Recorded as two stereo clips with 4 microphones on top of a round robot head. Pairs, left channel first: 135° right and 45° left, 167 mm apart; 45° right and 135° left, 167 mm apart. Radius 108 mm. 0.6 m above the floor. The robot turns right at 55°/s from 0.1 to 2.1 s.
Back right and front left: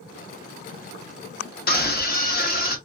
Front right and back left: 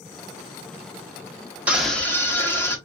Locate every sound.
1.7 s a scream: 145° right, 1.5 m; by 2.8 s 120° right, 1.5 m